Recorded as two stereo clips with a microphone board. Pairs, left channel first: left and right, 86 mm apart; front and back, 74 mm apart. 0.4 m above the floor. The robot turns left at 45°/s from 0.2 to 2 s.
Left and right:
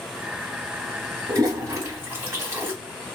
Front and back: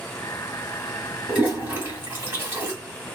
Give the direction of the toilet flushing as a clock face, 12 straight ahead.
4 o'clock.